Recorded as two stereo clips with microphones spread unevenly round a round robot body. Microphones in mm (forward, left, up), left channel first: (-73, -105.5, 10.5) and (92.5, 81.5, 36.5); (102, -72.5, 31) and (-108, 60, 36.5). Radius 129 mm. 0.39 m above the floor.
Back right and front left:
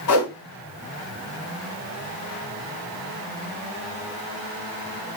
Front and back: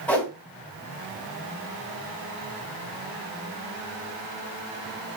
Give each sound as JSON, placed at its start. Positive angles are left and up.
{"t": 0.1, "sound": "a whoosh", "azimuth_deg": -115, "distance_m": 2.5}